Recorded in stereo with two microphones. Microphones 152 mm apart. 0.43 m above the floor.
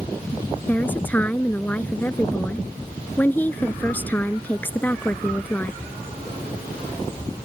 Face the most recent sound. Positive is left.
turn(degrees=10)  # may be behind; listen again after turning